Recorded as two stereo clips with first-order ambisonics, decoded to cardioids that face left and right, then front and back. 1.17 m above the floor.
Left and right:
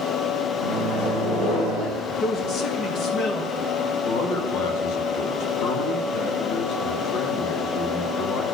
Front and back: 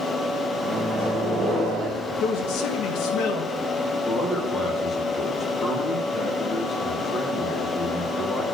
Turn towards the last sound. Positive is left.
turn(degrees=70)